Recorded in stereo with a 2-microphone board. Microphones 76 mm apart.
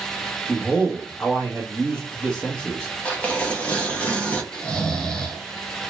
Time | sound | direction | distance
0.5 | a man speaking | 15° left (ahead or behind) | 1.0 m
3.0 | tearing paper | 15° left (ahead or behind) | 0.6 m
4.5 | snoring | 10° left (ahead or behind) | 0.6 m